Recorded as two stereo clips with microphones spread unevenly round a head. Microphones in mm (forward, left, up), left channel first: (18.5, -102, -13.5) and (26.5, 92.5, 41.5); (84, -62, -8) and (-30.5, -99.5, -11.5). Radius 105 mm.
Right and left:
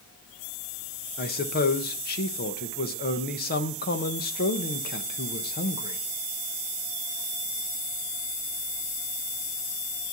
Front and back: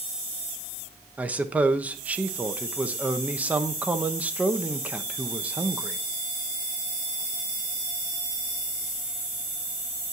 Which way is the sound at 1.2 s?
85° right.